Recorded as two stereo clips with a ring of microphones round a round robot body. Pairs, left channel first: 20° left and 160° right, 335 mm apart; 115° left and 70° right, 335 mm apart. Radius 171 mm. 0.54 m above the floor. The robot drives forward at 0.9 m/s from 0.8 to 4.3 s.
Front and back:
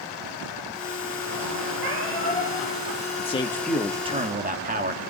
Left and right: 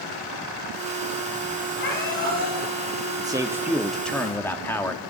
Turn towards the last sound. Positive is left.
turn(degrees=-170)